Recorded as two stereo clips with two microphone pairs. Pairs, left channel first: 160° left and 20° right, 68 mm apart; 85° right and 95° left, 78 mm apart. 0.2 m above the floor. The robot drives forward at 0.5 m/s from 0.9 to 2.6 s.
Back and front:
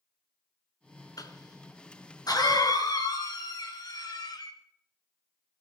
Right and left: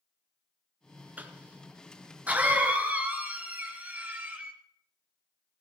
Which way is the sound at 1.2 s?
160° left.